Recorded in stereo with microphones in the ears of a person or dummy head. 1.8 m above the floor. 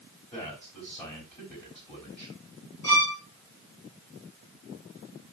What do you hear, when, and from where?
0.3 s a man speaking: 30° left (ahead or behind), 3.5 m
2.8 s a violin: 20° left (ahead or behind), 3 m